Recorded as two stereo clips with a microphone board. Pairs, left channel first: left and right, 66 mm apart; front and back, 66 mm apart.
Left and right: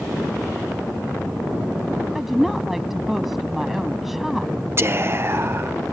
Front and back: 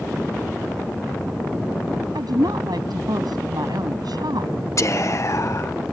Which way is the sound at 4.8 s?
40° right.